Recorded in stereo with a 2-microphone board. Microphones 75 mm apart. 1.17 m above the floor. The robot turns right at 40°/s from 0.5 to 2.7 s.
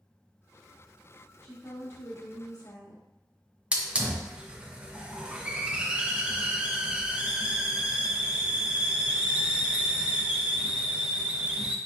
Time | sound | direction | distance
1.4 | a woman speaking | 15° left | 2.0 m
3.7 | a hiss | 15° right (ahead or behind) | 0.6 m